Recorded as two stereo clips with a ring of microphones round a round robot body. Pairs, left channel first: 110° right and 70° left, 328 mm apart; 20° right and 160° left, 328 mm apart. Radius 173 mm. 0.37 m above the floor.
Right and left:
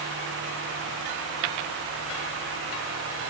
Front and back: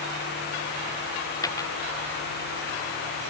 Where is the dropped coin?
60° left.